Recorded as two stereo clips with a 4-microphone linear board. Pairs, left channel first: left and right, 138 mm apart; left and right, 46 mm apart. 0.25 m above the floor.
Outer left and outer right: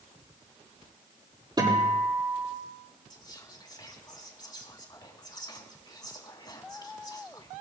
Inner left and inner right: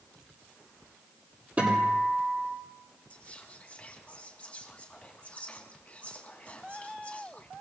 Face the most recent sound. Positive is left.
turn(degrees=30)  # may be behind; listen again after turning